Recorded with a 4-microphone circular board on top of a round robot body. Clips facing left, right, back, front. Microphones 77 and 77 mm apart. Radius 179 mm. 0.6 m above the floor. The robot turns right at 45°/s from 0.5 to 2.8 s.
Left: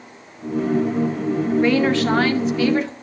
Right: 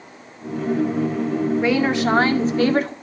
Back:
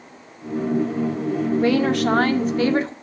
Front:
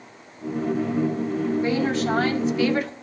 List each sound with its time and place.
1.6 s a woman speaking: 175° right, 2 m; by 2.9 s 125° right, 2 m